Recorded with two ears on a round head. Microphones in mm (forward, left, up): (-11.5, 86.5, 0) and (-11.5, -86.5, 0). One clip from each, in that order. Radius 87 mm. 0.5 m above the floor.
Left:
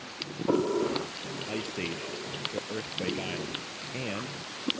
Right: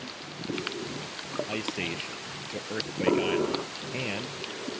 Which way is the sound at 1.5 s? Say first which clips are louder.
Even; 20° right (ahead or behind).